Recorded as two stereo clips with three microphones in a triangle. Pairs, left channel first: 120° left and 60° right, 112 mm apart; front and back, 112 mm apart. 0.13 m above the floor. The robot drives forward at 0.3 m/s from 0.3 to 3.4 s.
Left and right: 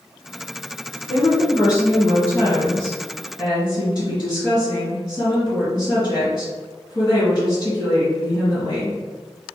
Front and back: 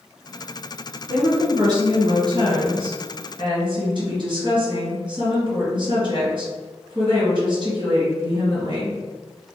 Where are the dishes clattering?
I don't hear dishes clattering.